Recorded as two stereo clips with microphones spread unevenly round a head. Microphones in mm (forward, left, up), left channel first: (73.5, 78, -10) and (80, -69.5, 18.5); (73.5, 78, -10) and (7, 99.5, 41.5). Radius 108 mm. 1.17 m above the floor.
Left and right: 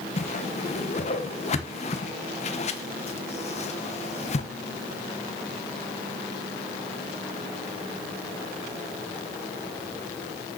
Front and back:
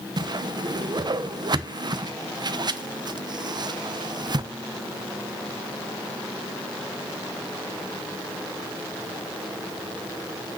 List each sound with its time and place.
0.2 s a whoosh: 115° left, 1.0 m